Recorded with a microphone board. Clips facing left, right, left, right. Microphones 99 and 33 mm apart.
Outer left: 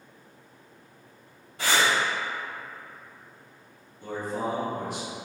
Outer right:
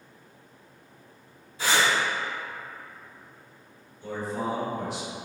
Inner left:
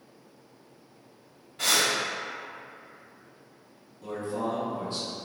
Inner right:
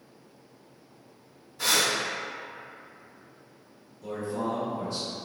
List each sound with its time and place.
1.6 s breathing: 55° left (ahead or behind), 1.5 m
4.0 s a man speaking: 45° left (ahead or behind), 1.1 m